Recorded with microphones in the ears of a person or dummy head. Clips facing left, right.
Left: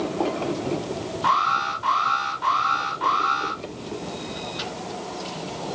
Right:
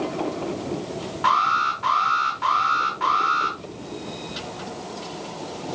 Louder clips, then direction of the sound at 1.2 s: Right 3 dB; 50° right (ahead or behind).